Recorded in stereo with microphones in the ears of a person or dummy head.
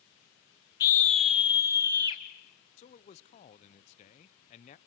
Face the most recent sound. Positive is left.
turn(degrees=30)  # may be behind; listen again after turning